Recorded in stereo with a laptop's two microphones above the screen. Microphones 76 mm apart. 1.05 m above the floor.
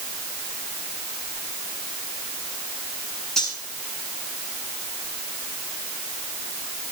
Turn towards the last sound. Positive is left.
turn(degrees=5)  # may be behind; listen again after turning